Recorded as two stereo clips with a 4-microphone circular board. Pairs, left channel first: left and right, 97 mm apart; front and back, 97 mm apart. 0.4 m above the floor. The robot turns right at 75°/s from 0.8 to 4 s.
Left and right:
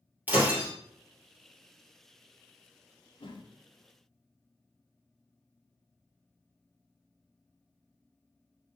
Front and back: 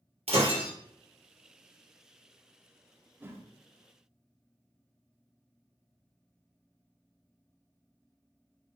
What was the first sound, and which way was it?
Breaking glass, 165° right.